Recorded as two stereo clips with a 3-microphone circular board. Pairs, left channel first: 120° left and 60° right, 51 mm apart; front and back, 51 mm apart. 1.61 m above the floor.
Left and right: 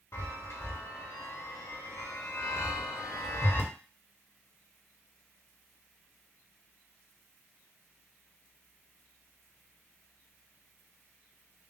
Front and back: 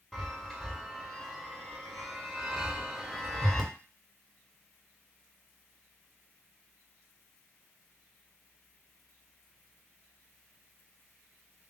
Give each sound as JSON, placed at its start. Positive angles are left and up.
{"t": 0.1, "sound": "a chime", "azimuth_deg": 85, "distance_m": 1.0}